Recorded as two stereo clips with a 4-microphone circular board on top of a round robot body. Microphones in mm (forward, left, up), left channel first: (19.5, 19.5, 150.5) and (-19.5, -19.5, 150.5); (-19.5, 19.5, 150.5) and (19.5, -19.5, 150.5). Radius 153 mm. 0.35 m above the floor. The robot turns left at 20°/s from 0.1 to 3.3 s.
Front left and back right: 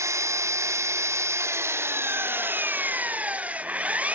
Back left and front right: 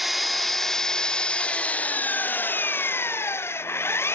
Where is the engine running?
130° right, 0.7 m; by 4.2 s 165° left, 0.7 m.